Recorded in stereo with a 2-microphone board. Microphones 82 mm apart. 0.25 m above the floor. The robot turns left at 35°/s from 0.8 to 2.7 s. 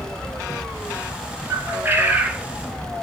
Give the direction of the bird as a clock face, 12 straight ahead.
5 o'clock.